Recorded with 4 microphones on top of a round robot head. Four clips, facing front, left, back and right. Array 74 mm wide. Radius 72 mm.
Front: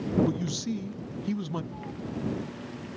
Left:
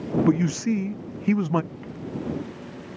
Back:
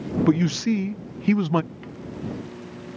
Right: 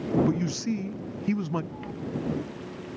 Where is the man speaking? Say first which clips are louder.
Left 6 dB, back 10 dB; 145° left.